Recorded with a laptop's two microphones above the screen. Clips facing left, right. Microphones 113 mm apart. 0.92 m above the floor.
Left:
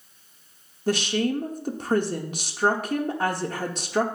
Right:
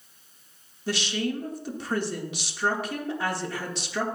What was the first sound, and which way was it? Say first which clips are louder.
A woman speaking: left 5 dB; 45° left (ahead or behind).